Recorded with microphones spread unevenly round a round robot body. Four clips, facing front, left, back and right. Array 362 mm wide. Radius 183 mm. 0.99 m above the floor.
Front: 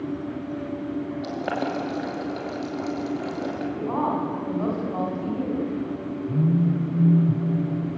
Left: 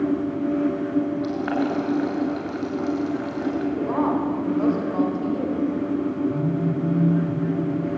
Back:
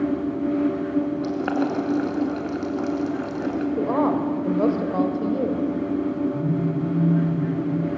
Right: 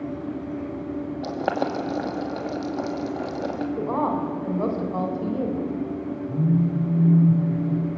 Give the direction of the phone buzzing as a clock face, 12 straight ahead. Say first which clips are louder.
Even, front 1 dB; 12 o'clock.